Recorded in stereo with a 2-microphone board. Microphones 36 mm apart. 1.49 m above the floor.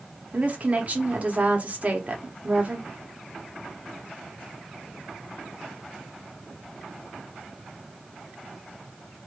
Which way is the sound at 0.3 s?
35° right (ahead or behind).